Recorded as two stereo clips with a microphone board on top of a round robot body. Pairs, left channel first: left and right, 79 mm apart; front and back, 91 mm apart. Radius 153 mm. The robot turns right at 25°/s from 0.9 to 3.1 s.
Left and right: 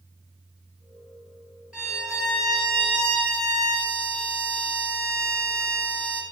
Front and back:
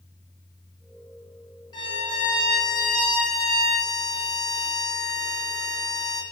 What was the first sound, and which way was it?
A violin, 10° right.